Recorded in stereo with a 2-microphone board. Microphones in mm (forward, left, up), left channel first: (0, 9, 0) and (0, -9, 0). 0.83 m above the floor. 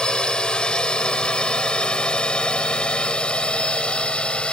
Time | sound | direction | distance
0.0 | a drone | 50° left (ahead or behind) | ?